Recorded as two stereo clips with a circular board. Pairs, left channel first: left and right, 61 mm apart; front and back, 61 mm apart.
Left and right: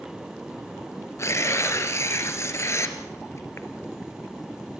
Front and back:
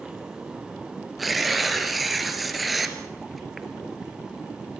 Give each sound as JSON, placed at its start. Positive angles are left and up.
{"t": 1.2, "sound": "tearing paper", "azimuth_deg": 90, "distance_m": 2.0}